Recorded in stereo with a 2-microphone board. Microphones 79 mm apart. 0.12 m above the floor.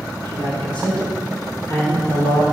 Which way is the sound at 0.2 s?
70° right (ahead or behind).